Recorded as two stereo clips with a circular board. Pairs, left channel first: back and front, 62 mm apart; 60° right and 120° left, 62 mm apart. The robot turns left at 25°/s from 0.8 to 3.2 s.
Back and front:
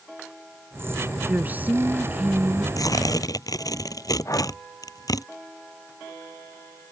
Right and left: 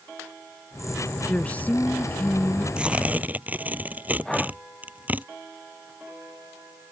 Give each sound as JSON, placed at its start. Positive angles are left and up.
{"t": 1.3, "sound": "a woman speaking", "azimuth_deg": -15}
{"t": 2.8, "sound": "tearing paper", "azimuth_deg": -165}
{"t": 4.2, "sound": "breathing", "azimuth_deg": -140}